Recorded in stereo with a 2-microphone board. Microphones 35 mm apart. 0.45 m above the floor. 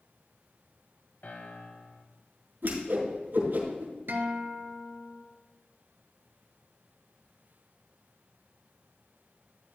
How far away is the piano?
About 1.4 m.